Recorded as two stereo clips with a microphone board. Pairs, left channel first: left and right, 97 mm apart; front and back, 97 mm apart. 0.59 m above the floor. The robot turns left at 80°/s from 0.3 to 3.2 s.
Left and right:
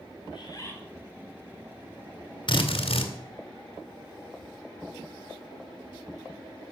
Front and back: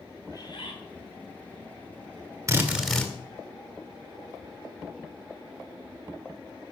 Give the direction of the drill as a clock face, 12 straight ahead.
8 o'clock.